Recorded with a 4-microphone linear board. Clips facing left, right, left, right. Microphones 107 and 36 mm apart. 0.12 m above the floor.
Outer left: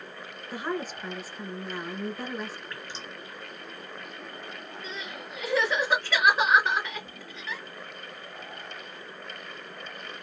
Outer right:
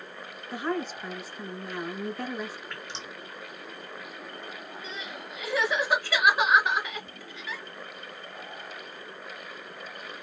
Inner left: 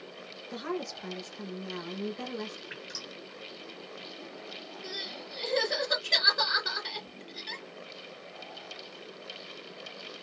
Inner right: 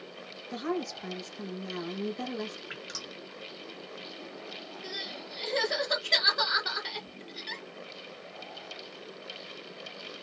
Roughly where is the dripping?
Right.